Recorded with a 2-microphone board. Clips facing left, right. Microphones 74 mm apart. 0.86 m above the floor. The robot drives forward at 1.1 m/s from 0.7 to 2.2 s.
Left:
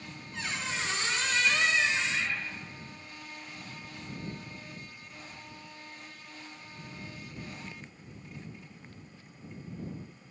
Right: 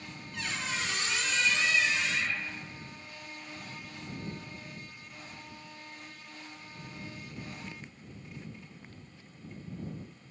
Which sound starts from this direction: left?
A squeak, at 0.3 s.